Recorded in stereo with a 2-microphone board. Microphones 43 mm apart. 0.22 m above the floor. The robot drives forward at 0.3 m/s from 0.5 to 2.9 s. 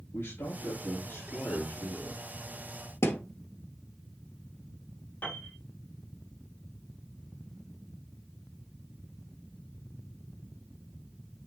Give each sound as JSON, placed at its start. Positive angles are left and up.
{"t": 0.1, "sound": "a man speaking", "side_deg": 70, "distance_m": 4.0}
{"t": 3.0, "sound": "a thud", "side_deg": 75, "distance_m": 1.4}
{"t": 5.2, "sound": "a piano", "side_deg": 50, "distance_m": 3.0}